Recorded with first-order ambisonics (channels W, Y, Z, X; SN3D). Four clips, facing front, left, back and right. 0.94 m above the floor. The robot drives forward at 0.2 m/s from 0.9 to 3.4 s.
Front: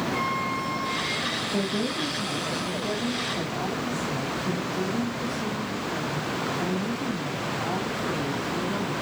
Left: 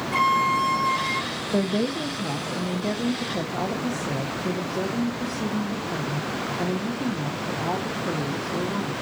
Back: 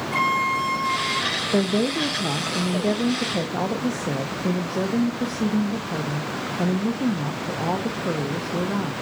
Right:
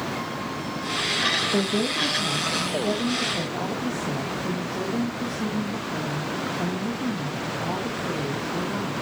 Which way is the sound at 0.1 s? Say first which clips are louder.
Left 10 dB, back 6 dB; 130° left.